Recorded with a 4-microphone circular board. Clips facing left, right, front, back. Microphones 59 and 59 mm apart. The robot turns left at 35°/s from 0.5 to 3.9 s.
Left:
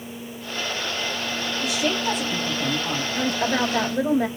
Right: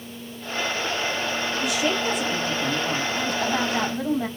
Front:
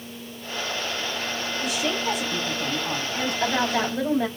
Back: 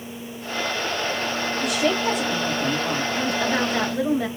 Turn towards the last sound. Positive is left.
turn(degrees=90)